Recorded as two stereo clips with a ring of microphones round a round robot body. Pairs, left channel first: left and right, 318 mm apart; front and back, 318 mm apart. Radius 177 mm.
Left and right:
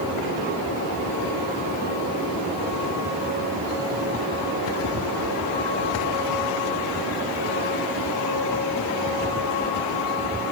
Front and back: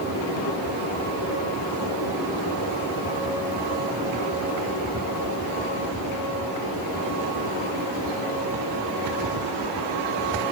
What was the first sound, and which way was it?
Only background noise.